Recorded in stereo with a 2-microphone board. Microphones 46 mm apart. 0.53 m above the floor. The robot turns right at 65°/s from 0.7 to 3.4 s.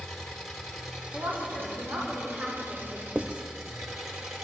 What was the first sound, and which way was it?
An engine running, 175° left.